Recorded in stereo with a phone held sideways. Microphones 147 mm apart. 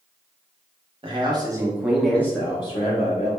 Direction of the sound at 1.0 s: 35° right (ahead or behind).